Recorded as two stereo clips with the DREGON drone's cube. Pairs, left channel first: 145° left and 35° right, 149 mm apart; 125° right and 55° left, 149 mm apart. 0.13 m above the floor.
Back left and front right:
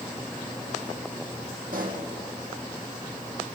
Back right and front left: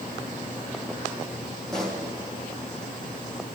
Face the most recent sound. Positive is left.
turn(degrees=-40)